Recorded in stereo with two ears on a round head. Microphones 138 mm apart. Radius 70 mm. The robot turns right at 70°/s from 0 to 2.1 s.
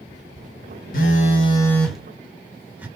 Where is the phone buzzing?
110° left, 1.0 m; by 2.9 s 170° right, 1.0 m.